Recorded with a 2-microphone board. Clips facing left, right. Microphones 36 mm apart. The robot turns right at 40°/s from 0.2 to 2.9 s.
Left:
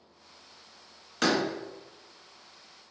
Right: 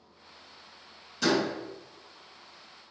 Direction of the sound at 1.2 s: 55° left (ahead or behind).